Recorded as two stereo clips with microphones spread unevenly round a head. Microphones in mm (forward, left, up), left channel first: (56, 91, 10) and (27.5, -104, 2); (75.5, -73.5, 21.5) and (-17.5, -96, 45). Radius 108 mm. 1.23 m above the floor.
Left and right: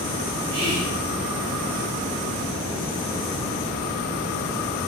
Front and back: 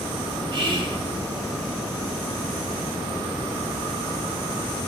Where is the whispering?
130° right, 1.0 m.